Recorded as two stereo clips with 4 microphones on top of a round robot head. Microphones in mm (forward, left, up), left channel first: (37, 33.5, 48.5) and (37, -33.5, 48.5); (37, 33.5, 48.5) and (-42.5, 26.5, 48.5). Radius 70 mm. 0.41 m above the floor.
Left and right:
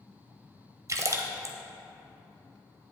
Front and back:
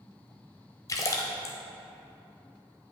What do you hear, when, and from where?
0.9 s a splash: 50° right, 0.9 m